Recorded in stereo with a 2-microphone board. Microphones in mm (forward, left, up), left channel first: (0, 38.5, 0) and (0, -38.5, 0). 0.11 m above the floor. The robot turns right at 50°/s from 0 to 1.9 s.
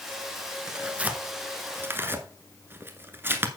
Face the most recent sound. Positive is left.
turn(degrees=-30)  # may be behind; listen again after turning